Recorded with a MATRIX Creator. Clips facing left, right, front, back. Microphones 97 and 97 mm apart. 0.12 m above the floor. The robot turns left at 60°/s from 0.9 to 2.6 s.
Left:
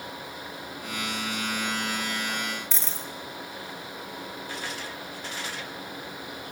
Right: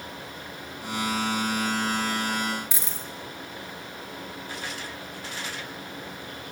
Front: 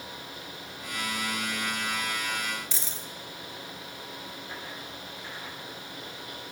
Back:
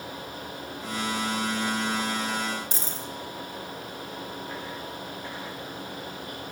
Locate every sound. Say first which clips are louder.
2.7 s a dropped coin: even, back 5 dB; 160° right, 0.6 m